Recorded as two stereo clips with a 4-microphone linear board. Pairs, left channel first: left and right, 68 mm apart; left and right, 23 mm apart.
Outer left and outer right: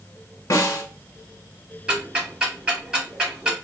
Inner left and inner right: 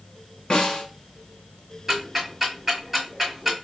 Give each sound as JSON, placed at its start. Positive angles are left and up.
{"t": 0.5, "sound": "a snare drum", "side_deg": 45, "distance_m": 1.2}
{"t": 1.9, "sound": "ticking", "side_deg": -15, "distance_m": 1.6}